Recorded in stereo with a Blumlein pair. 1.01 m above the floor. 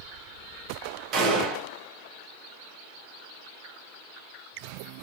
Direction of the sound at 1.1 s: 35° right.